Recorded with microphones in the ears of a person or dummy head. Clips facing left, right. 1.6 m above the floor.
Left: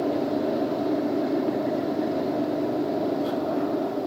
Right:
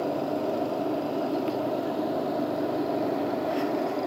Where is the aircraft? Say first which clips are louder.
Left 3 dB; 25° left (ahead or behind); by 4.1 s 10° left (ahead or behind).